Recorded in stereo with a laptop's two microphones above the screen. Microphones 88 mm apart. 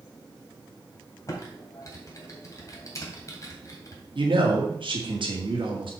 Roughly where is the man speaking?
Right.